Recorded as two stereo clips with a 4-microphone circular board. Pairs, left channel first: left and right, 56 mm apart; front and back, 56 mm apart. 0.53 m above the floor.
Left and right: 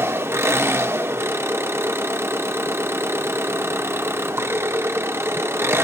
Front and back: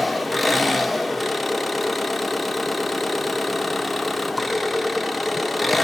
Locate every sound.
0.0 s an engine running: 90° right, 0.8 m